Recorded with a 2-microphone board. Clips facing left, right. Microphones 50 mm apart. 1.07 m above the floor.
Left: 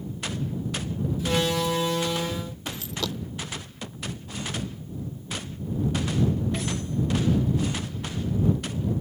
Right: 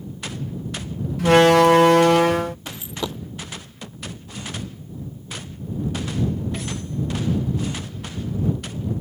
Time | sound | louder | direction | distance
1.2 | a door slam | right 13 dB | 65° right (ahead or behind) | ?
2.7 | a dropped coin | right 2 dB | 20° right (ahead or behind) | ?